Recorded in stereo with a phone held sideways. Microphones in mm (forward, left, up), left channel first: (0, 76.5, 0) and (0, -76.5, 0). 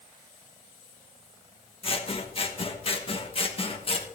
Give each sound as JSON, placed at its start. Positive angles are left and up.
{"t": 1.8, "sound": "scissors", "side_deg": 35, "distance_m": 1.1}